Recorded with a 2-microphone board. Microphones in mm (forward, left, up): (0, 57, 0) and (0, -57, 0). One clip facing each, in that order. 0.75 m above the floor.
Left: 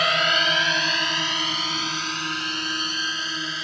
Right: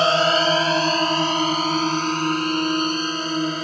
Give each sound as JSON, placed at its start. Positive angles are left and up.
{"t": 0.0, "sound": "a drone", "side_deg": -30}